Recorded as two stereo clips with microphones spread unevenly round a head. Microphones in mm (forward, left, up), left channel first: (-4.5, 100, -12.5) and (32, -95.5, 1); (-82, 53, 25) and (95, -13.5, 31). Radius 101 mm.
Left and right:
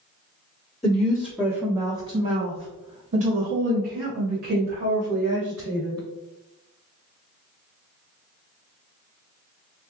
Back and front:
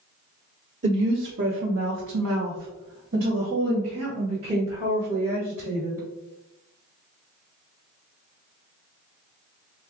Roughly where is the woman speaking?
Ahead left.